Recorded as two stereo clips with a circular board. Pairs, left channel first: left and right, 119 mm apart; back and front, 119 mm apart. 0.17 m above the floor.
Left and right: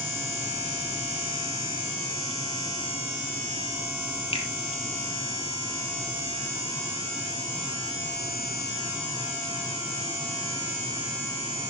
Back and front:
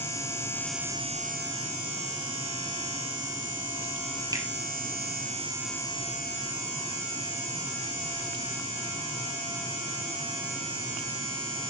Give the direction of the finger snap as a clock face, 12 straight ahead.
10 o'clock.